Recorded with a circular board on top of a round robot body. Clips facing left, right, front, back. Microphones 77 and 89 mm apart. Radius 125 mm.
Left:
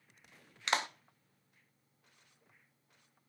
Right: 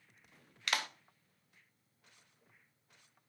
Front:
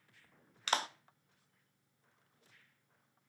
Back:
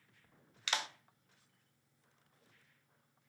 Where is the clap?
35° left, 0.7 m.